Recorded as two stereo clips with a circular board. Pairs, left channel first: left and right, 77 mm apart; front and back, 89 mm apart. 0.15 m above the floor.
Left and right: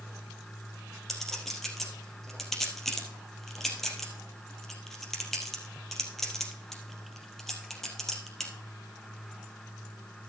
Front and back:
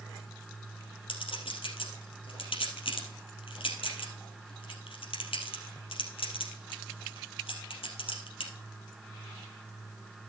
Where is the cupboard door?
No cupboard door in this recording.